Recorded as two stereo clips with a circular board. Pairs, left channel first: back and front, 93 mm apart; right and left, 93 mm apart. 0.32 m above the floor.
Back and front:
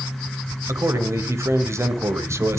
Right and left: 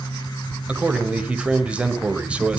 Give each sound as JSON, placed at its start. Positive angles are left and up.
{"t": 0.7, "sound": "a man speaking", "azimuth_deg": 20, "distance_m": 1.7}